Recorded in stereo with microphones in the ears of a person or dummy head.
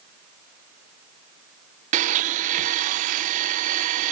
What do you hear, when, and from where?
1.9 s a blender: 45° right (ahead or behind)